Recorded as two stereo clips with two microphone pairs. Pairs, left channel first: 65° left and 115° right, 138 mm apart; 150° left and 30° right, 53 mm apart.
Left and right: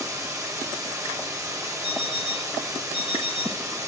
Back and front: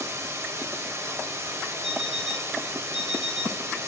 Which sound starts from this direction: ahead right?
Running water, at 0.0 s.